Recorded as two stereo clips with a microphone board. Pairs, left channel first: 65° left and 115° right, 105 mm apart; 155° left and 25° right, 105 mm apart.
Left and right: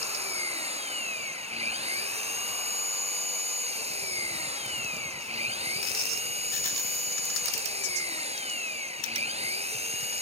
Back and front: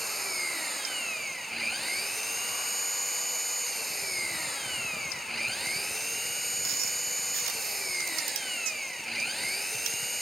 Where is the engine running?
115° right.